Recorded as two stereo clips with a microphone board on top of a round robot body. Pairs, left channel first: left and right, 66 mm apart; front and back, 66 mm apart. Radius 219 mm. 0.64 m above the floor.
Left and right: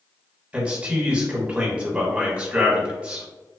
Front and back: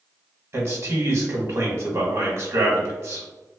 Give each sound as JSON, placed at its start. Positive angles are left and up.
{"t": 0.5, "sound": "a man speaking", "azimuth_deg": -155, "distance_m": 1.2}